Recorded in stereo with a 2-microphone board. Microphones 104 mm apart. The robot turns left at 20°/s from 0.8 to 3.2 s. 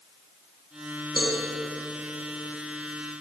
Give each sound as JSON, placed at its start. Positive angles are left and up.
{"t": 1.2, "sound": "a cowbell", "side_deg": -15, "distance_m": 3.0}